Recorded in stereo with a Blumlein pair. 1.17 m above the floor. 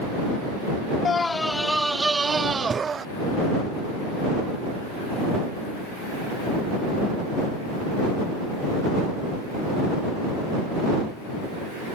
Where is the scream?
20° left; by 3.0 s 20° right.